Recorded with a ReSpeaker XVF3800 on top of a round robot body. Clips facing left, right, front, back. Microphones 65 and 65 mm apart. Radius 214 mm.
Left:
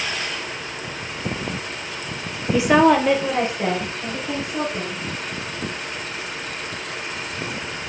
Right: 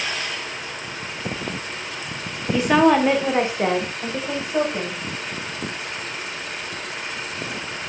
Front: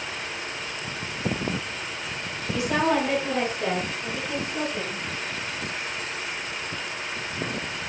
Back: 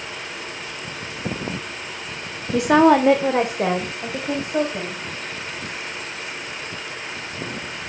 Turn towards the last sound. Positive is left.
turn(degrees=-145)